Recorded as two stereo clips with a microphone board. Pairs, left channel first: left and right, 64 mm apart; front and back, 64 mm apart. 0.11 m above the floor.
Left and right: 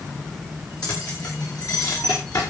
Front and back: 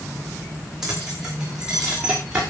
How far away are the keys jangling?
About 7.5 m.